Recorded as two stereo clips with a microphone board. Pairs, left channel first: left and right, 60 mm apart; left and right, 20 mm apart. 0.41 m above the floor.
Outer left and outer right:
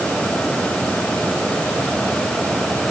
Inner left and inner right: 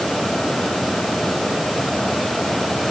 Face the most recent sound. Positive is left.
No sound to turn to.